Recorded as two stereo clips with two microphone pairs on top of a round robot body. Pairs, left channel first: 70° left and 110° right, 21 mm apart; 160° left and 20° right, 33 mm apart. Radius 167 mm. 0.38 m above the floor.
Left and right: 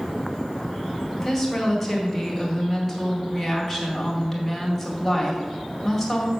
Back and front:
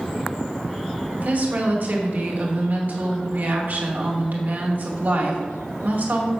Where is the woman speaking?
20° right, 2.5 m.